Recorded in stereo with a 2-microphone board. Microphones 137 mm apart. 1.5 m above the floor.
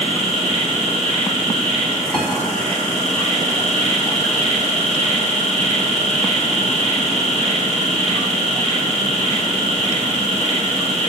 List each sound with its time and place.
0.0 s an insect: 50° right (ahead or behind), 6.5 m
2.1 s a piano: 5° left (ahead or behind), 4 m